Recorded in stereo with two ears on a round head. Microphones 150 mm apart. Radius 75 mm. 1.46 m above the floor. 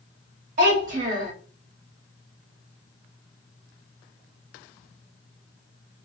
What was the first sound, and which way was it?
A child speaking, 50° right (ahead or behind).